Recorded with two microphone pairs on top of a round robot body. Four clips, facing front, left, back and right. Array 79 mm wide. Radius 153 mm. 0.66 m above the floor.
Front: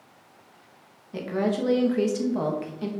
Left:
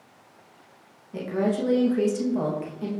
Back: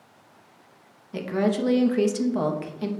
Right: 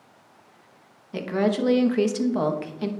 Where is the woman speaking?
110° right, 1.0 m.